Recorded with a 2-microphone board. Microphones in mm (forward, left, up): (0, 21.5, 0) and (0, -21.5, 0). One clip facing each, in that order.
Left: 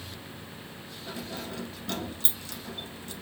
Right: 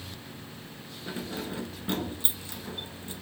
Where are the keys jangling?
20° right (ahead or behind), 0.9 m.